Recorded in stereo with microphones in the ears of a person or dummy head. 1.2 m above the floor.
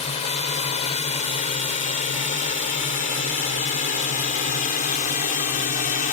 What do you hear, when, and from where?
0.0 s a drone: 35° left (ahead or behind); by 6.1 s 45° left (ahead or behind)